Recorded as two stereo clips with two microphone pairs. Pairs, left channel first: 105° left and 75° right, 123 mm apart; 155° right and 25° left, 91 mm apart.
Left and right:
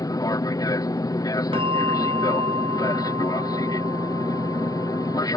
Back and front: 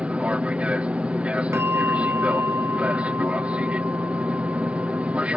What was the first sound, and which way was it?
An aircraft, 90° left.